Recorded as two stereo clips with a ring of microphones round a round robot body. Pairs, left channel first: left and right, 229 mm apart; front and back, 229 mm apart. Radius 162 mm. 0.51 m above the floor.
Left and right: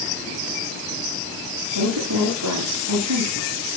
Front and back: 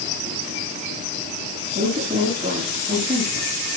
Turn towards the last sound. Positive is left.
turn(degrees=-105)